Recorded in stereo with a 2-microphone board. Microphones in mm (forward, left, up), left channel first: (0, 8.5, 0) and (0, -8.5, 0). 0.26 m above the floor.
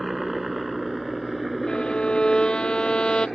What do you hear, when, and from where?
0.0 s a helicopter: 10° right (ahead or behind); by 3.4 s 10° left (ahead or behind)
1.7 s a violin: 75° left (ahead or behind)